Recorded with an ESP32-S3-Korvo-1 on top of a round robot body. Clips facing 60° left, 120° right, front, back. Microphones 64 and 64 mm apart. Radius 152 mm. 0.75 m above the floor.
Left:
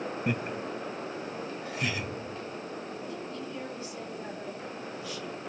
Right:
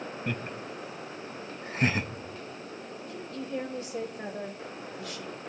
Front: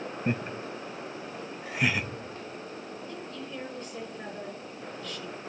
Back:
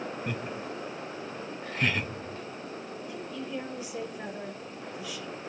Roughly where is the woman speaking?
Right.